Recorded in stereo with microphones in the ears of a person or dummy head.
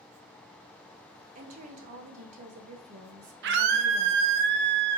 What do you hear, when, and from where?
1.4 s a woman speaking: 40° right (ahead or behind), 0.8 m
3.4 s a scream: 65° right (ahead or behind), 0.6 m